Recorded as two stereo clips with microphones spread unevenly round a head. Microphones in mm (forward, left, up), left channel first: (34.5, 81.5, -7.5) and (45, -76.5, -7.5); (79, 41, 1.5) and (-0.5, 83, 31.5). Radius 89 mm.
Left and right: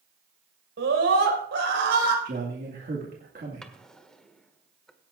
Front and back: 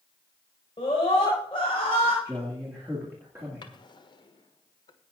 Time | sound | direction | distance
0.8 | a scream | 90° right | 5.5 m
2.2 | a man speaking | 130° right | 1.9 m
3.6 | a drawer | 10° left | 1.5 m